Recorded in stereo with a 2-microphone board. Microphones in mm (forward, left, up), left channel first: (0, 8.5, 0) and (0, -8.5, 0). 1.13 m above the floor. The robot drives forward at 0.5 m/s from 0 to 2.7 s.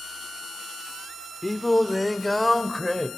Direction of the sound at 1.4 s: 10° left (ahead or behind).